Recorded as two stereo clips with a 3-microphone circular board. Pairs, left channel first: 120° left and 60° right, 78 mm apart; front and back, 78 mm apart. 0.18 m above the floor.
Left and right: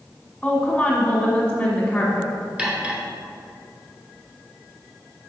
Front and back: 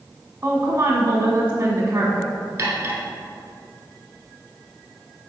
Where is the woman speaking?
170° right, 1.2 m.